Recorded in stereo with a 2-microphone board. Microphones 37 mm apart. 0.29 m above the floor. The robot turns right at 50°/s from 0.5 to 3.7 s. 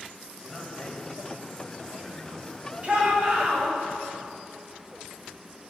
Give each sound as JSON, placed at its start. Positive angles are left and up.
{"t": 0.4, "sound": "a man speaking", "side_deg": 0, "distance_m": 1.1}
{"t": 2.8, "sound": "a shout", "azimuth_deg": -90, "distance_m": 1.3}